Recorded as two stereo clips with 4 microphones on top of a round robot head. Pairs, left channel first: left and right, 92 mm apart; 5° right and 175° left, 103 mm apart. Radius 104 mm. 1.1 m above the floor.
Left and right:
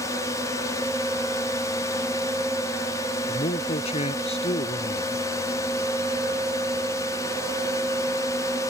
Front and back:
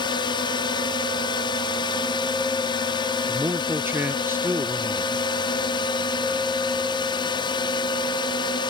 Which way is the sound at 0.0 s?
35° left.